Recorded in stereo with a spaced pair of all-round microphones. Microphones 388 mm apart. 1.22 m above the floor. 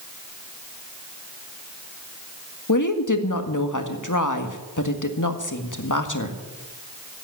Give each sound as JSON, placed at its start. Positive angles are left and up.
{"t": 2.7, "sound": "a woman speaking", "side_deg": 50, "distance_m": 1.8}